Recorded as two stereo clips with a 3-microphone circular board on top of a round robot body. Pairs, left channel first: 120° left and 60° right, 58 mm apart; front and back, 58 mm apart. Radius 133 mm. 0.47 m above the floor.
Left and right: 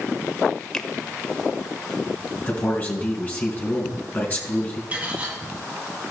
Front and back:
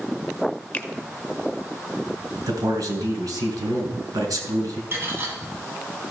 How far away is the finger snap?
About 1.1 m.